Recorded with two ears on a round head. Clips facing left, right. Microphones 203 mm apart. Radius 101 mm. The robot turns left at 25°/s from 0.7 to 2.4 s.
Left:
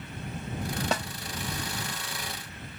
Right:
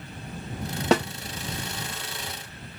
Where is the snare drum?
55° right (ahead or behind).